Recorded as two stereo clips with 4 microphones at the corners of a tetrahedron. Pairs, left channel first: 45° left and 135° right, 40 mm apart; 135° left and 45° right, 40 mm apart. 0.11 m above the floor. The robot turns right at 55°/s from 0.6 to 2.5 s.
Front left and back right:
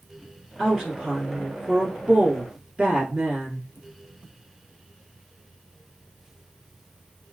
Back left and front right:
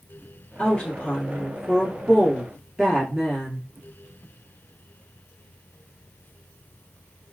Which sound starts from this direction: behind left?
A woman speaking, at 0.6 s.